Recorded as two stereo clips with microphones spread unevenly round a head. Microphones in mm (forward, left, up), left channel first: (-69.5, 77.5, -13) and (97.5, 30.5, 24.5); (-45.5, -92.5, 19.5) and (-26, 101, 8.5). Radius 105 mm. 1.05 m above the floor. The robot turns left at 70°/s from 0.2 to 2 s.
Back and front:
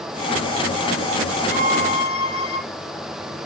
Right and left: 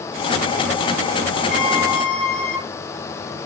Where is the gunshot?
I don't hear a gunshot.